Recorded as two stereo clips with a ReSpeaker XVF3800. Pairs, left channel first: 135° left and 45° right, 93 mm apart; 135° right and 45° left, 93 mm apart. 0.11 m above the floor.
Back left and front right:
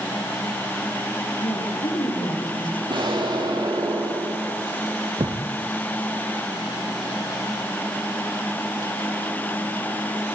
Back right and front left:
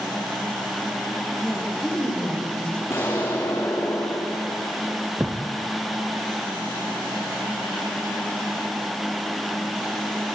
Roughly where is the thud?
Ahead right.